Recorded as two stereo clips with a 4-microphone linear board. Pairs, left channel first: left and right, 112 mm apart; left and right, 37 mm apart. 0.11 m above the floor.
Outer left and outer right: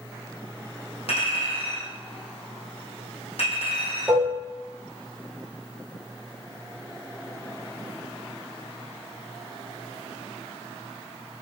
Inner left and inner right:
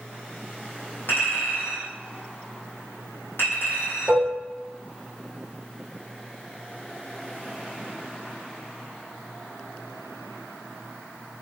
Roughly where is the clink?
Left.